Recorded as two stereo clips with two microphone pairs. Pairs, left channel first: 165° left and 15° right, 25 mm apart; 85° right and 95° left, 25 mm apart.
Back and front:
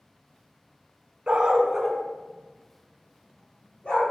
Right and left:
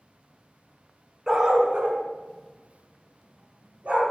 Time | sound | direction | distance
1.3 | a dog barking | 25° left | 1.0 m